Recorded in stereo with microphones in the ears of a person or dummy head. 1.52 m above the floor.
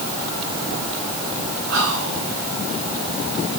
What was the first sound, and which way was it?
Whispering, 75° right (ahead or behind).